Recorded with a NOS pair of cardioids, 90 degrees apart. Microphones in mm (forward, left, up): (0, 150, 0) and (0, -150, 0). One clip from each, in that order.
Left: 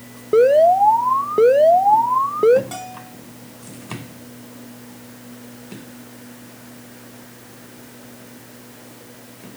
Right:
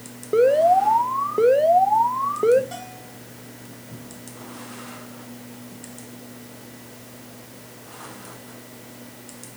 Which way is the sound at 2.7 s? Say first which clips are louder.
Left 4 dB; 50° left.